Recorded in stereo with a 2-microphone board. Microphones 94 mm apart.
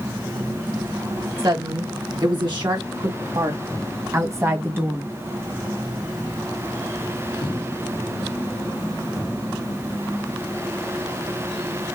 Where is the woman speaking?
55° right (ahead or behind), 2.5 m; by 5.1 s 20° right (ahead or behind), 1.8 m.